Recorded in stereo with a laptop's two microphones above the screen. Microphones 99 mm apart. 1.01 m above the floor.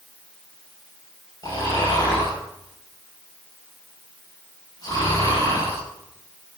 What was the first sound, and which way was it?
Snoring, 40° left (ahead or behind).